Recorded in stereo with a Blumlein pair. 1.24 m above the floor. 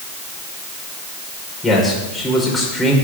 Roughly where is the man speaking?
Ahead.